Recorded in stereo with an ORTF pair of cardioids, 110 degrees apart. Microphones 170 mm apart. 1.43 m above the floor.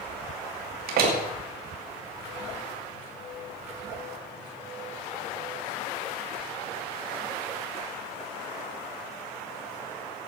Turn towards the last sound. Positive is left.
turn(degrees=-65)